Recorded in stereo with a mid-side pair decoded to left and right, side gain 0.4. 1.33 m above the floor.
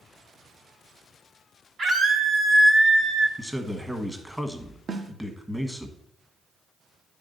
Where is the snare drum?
45° right, 0.8 m.